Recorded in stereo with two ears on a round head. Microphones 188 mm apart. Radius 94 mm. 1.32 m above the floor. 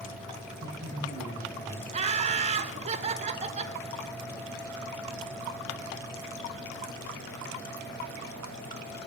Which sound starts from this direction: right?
Laughter, at 1.9 s.